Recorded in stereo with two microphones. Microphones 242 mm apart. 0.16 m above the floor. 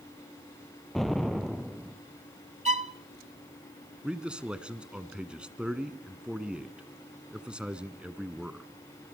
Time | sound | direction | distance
0.9 | an explosion | centre (ahead or behind) | 1.3 m
2.6 | a violin | 30° right (ahead or behind) | 0.5 m
4.0 | a man speaking | 5° right (ahead or behind) | 1.4 m